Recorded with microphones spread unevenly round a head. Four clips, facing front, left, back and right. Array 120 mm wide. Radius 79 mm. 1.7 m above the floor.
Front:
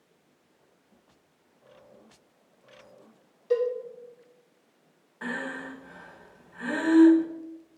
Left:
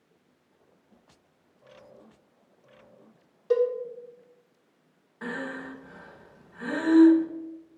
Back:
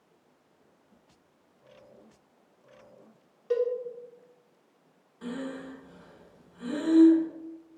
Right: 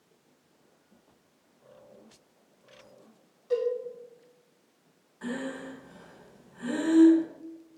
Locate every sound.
3.5 s a cowbell: 95° left, 1.8 m
5.2 s breathing: 30° left, 1.8 m